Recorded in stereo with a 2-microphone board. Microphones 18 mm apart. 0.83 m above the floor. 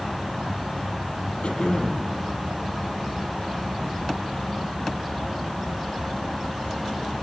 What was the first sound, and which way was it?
Throat clearing, 70° left (ahead or behind).